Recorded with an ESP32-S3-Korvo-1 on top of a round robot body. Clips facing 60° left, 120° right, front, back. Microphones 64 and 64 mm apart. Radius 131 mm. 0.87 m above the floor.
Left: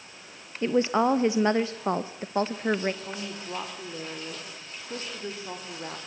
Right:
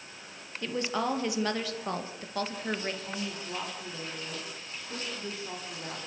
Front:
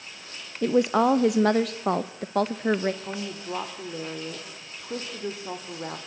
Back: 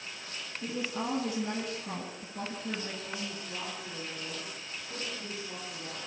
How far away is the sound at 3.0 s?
About 3 m.